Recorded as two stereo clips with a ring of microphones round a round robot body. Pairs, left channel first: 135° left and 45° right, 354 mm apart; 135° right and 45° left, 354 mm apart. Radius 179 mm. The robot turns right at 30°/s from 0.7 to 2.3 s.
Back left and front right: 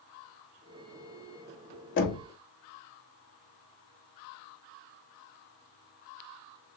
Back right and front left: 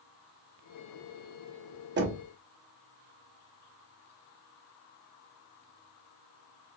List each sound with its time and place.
2.0 s knocking: 90° left, 0.8 m; by 2.2 s 100° left, 0.8 m